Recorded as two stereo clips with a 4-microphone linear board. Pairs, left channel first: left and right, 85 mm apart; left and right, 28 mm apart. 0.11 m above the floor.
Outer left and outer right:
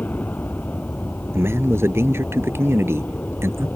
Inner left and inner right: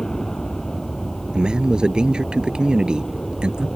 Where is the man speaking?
30° right (ahead or behind).